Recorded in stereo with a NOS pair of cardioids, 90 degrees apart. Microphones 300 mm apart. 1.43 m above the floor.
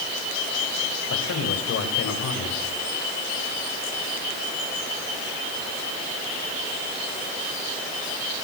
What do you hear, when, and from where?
1.1 s a man speaking: 55° left, 8.5 m